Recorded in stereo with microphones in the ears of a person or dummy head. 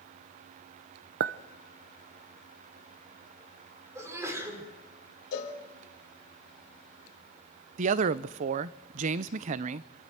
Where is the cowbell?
65° left (ahead or behind), 3 m.